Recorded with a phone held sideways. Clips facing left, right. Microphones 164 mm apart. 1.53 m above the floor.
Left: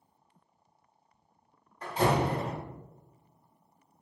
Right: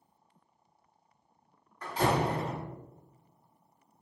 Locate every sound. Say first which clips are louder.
1.8 s a door slam: left 1 dB; 25° left (ahead or behind), 1.8 m